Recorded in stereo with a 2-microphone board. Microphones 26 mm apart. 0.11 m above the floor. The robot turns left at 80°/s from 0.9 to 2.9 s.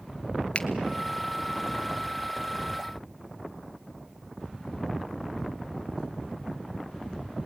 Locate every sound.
0.6 s a finger snap: 40° left (ahead or behind), 1.2 m